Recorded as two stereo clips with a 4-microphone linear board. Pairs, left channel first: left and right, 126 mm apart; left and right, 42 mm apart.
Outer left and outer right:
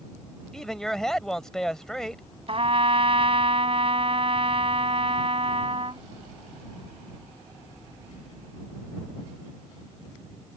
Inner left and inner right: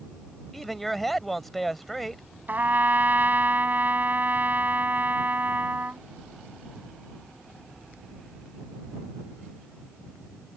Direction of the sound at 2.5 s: 50° right (ahead or behind).